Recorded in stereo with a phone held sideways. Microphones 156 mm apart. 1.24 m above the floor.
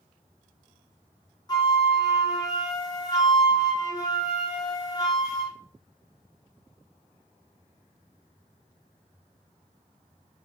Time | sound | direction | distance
1.5 | a flute | 25° left (ahead or behind) | 0.8 m